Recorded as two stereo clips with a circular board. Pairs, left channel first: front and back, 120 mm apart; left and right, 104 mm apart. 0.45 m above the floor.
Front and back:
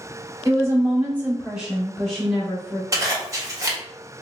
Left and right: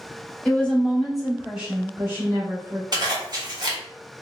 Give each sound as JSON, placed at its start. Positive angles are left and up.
{"t": 0.5, "sound": "a woman speaking", "azimuth_deg": 150, "distance_m": 1.2}
{"t": 2.9, "sound": "a zipper", "azimuth_deg": -125, "distance_m": 1.1}